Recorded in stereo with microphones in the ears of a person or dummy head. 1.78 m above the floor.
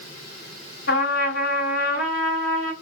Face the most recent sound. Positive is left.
turn(degrees=70)  # may be behind; listen again after turning